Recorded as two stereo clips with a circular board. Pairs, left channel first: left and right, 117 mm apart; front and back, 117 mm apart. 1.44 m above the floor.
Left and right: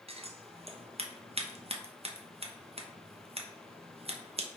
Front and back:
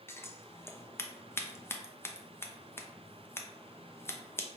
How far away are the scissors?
About 0.5 m.